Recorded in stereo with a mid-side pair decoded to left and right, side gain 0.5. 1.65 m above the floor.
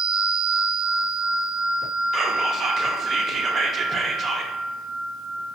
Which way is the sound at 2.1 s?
45° right.